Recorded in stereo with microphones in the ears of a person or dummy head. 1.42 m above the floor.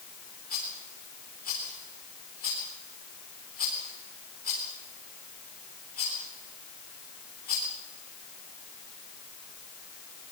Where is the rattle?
45° left (ahead or behind), 4.5 m.